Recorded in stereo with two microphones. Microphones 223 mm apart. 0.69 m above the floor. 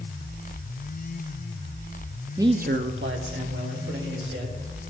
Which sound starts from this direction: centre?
A man speaking, at 2.4 s.